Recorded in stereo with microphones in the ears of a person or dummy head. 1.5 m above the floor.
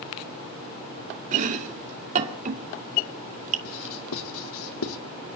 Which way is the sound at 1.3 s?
50° right (ahead or behind).